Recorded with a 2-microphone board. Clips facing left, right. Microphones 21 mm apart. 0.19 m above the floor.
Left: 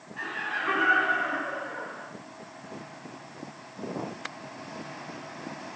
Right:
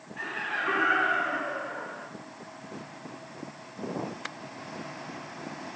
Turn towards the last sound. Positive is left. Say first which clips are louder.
# even
turn(degrees=5)  # may be behind; listen again after turning